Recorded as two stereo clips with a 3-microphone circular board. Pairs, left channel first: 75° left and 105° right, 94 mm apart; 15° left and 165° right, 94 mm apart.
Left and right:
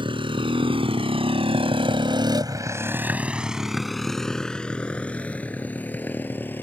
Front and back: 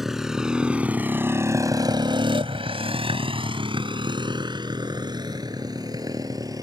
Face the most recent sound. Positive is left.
turn(degrees=145)